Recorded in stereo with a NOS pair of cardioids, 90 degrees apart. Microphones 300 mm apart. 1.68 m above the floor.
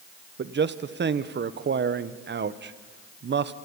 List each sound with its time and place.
0.4 s a man speaking: 35° right, 1.2 m